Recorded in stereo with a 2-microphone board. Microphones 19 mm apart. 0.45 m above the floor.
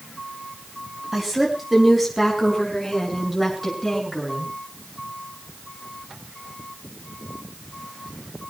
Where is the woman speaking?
15° right (ahead or behind), 3.5 m; by 4.5 s 5° left (ahead or behind), 8 m.